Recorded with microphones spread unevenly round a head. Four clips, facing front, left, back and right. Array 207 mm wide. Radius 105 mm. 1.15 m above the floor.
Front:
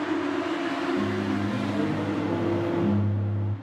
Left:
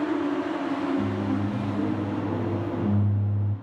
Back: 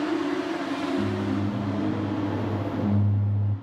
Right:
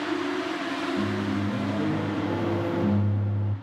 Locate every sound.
1.0 s a microwave: 35° right, 1.1 m